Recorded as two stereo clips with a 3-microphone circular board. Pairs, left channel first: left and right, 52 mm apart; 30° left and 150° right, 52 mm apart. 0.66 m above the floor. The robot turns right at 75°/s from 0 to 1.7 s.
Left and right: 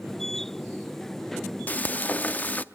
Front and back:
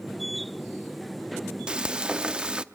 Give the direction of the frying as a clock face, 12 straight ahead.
7 o'clock.